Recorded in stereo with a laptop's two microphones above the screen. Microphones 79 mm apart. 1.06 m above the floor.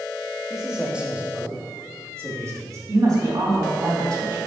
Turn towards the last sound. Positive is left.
turn(degrees=-50)  # may be behind; listen again after turning